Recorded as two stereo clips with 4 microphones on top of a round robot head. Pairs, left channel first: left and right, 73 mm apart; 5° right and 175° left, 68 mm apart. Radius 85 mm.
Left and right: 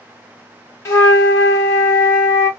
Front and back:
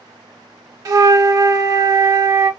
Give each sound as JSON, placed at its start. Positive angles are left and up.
{"t": 0.8, "sound": "a flute", "azimuth_deg": 140, "distance_m": 0.7}